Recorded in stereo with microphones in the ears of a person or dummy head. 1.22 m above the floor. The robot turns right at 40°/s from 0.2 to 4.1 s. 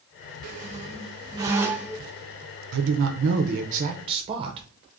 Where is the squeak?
65° right, 0.6 m; by 2.1 s straight ahead, 0.6 m.